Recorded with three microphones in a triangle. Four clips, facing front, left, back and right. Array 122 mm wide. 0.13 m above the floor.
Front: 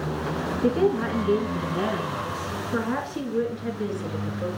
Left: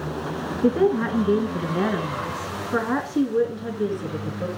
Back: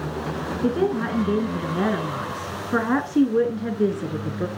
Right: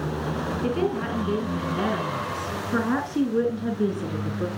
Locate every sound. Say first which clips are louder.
0.6 s a woman speaking: left 7 dB, even; 95° left, 1.8 m; by 4.5 s 175° right, 2.5 m